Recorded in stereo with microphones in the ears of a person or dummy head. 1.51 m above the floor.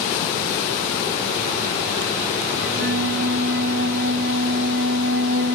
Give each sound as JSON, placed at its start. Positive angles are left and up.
{"t": 2.6, "sound": "a flute", "side_deg": -50, "distance_m": 1.9}